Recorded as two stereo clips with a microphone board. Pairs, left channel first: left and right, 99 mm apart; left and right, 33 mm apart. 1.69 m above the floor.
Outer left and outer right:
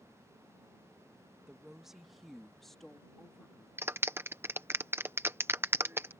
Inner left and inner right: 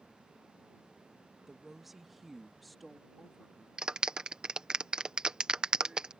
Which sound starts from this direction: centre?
A woman speaking, at 1.5 s.